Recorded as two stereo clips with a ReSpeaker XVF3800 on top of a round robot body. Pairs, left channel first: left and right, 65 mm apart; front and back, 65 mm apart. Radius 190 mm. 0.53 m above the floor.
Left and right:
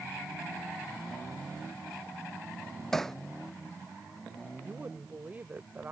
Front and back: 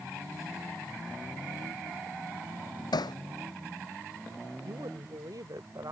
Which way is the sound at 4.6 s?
155° right.